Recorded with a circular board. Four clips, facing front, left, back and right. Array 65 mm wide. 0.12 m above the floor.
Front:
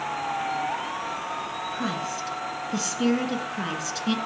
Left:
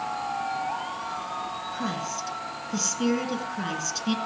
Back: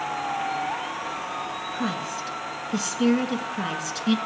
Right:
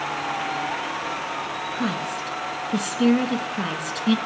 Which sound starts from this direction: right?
A woman speaking, at 1.7 s.